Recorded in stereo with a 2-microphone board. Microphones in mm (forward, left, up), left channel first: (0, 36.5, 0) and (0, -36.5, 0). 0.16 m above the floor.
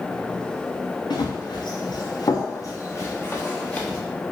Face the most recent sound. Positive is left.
turn(degrees=20)  # may be behind; listen again after turning